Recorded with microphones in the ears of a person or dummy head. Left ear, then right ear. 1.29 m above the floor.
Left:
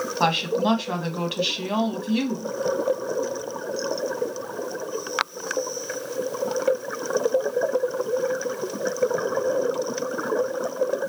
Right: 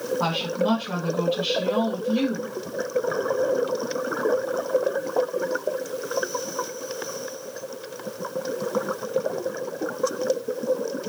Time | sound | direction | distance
0.2 | a woman speaking | 80° left | 1.4 m